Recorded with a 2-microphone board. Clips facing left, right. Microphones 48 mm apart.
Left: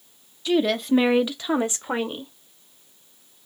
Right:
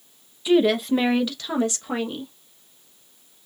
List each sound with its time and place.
0.5 s a woman speaking: 15° right (ahead or behind), 0.9 m; by 2.3 s 25° left (ahead or behind), 1.8 m